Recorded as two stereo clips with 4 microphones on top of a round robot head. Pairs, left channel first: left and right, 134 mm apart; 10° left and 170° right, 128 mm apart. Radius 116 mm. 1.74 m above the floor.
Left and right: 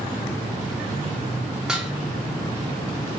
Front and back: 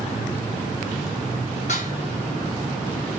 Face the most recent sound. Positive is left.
turn(degrees=-5)